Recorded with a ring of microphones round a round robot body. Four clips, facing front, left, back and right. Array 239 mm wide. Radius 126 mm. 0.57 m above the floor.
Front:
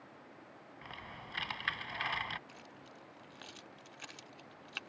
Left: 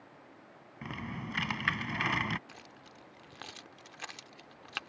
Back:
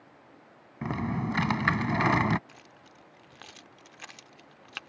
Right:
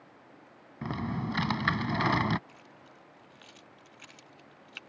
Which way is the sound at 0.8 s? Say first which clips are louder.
Right 7 dB, back 20 dB; 160° right.